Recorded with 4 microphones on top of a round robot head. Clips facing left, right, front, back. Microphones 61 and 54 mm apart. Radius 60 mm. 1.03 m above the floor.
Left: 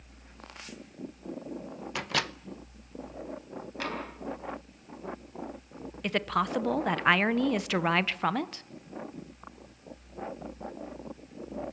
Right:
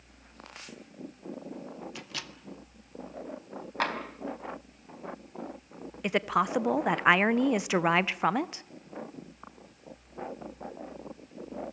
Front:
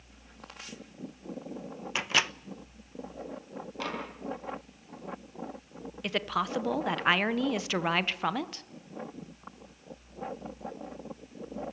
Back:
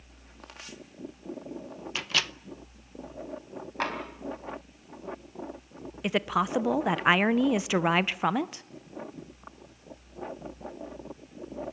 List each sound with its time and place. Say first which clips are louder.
1.9 s a microwave: left 10 dB, front 2 dB; 65° left, 0.7 m
3.8 s tapping: right 5 dB, back 5 dB; 125° right, 3.5 m
6.0 s a woman speaking: right 2 dB, back 4 dB; 135° right, 0.7 m